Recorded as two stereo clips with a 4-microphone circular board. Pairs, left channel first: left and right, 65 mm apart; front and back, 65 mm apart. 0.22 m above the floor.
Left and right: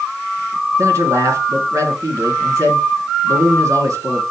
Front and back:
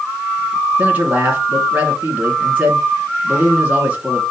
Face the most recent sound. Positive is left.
turn(degrees=-115)